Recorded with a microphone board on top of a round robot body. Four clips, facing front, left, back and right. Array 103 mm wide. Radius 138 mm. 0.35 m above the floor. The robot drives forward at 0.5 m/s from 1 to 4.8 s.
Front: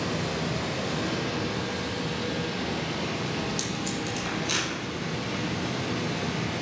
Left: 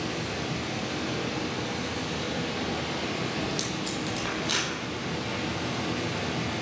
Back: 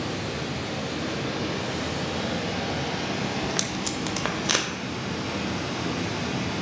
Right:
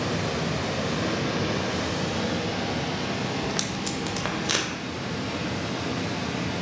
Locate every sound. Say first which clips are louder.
0.0 s running water: right 5 dB, front 1 dB; 75° right, 0.7 m; by 6.6 s 160° right, 1.9 m
3.4 s tape being pulled: right 2 dB, back 2 dB; 135° right, 0.6 m; by 4.7 s 165° right, 1.1 m